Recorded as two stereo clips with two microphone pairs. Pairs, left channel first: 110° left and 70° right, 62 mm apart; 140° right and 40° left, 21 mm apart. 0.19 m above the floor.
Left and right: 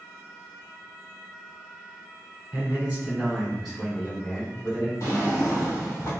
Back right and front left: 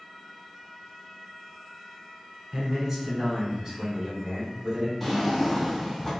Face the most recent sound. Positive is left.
turn(degrees=135)